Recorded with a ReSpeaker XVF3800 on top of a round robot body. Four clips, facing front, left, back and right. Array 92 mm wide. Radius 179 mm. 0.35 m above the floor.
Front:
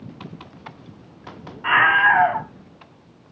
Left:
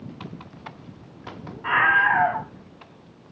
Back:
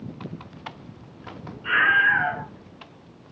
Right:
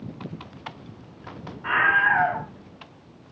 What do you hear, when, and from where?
1.6 s a scream: straight ahead, 4 m